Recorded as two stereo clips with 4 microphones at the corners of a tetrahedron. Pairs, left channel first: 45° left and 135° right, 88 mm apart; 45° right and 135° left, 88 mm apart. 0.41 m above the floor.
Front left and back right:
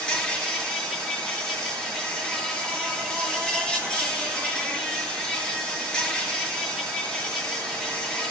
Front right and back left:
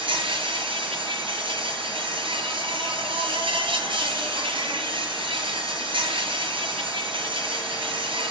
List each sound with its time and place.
0.0 s an insect: 125° left, 6 m